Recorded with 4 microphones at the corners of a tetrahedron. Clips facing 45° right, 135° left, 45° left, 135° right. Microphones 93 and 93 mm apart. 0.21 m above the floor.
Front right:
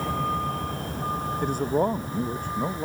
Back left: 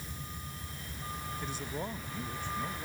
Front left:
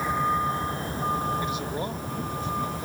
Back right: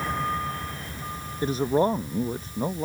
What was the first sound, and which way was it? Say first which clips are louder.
A vehicle: front right 19 dB, front left 3 dB; 35° right.